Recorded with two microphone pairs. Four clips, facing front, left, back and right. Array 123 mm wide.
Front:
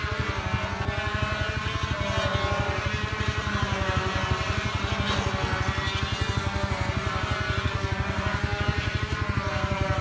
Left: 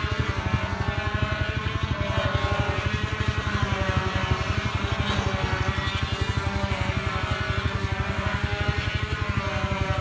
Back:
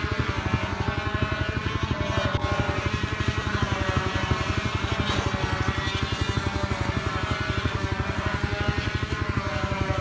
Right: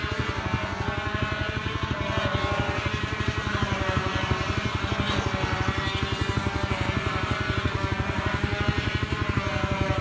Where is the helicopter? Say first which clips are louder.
Even, back 2 dB; 160° right; by 10.0 s 120° right.